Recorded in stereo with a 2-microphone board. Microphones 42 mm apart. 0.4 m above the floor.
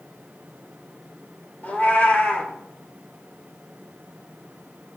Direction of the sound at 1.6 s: 45° left (ahead or behind).